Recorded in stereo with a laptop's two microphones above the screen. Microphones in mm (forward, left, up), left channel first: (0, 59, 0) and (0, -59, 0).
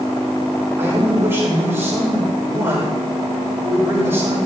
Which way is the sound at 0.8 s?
20° right (ahead or behind).